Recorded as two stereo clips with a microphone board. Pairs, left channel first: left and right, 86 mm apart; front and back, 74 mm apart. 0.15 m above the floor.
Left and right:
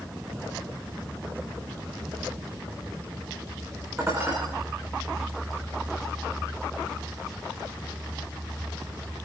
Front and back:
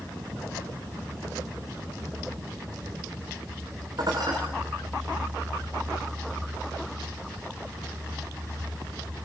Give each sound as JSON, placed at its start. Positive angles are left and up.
{"t": 4.0, "sound": "dishes clattering", "azimuth_deg": -150, "distance_m": 8.0}